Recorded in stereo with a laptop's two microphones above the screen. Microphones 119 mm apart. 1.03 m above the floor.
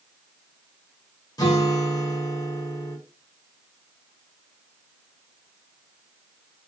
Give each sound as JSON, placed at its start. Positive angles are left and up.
{"t": 1.4, "sound": "a guitar", "side_deg": 35, "distance_m": 0.9}